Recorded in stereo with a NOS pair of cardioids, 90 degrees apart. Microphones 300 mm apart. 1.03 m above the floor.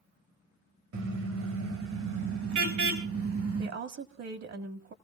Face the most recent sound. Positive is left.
turn(degrees=-55)